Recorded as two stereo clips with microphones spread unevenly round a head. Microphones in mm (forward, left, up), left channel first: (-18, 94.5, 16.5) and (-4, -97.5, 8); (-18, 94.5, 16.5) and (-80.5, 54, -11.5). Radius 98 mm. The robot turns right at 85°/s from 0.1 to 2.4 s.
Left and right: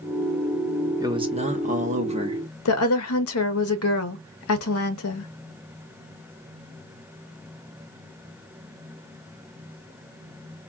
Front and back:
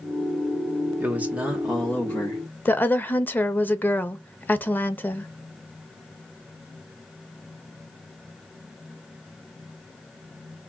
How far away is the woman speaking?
About 0.7 m.